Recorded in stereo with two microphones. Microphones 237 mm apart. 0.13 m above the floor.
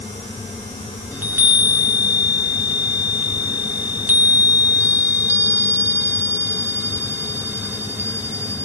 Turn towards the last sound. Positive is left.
turn(degrees=-10)  # may be behind; listen again after turning